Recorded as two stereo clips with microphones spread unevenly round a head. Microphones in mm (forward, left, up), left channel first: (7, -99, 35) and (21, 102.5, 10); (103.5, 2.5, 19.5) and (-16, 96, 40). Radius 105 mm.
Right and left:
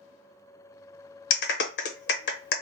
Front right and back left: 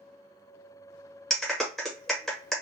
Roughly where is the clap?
Behind right.